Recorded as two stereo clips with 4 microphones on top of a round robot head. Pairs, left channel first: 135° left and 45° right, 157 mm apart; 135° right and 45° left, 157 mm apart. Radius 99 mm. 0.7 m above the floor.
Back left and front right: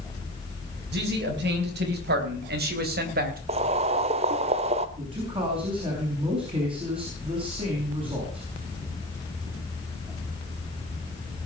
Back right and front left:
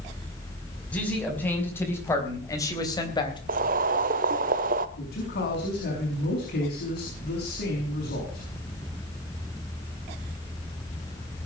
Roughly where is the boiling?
Ahead.